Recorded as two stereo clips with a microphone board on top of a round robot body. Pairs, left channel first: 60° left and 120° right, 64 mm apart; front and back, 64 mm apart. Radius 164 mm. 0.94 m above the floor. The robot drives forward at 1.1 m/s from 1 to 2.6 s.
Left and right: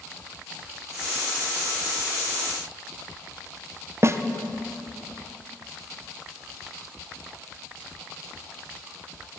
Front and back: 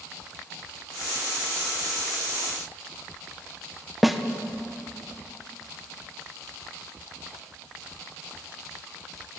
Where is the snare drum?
95° right, 0.9 m.